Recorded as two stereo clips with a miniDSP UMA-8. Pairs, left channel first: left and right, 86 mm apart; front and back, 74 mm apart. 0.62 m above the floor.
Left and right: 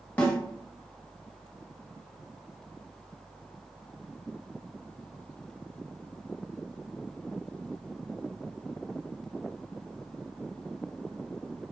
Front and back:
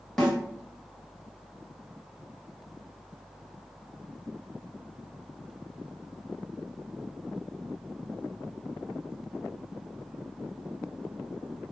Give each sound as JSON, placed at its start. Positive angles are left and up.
{"t": 0.2, "sound": "a snare drum", "azimuth_deg": 65, "distance_m": 0.9}